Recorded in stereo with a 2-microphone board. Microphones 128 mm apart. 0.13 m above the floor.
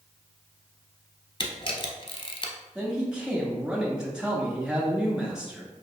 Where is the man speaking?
5° right (ahead or behind), 1.4 m.